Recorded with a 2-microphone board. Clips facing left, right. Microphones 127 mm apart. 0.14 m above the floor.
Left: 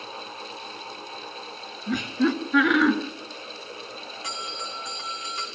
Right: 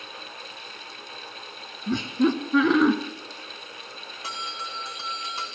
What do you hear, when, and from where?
1.9 s laughter: 35° right (ahead or behind), 2 m
4.2 s a bell: 35° right (ahead or behind), 4 m